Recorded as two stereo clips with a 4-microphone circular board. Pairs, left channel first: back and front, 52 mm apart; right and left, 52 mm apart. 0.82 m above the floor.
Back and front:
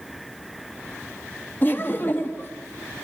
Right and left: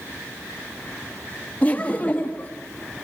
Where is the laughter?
145° right, 1.4 m.